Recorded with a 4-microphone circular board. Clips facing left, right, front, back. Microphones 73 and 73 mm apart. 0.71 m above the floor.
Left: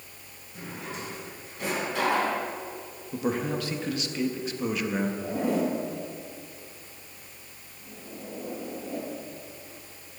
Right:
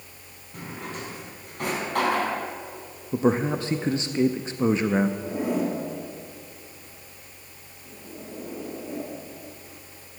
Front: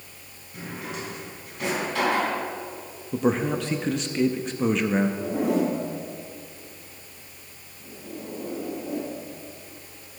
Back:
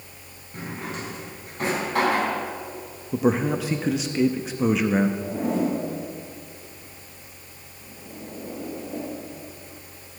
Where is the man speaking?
100° right, 0.5 m.